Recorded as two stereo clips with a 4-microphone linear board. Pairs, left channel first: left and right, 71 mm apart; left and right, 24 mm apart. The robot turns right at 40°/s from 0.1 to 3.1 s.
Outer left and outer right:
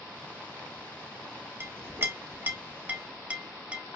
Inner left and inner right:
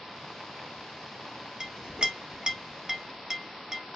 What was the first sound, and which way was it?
A clink, 35° right (ahead or behind).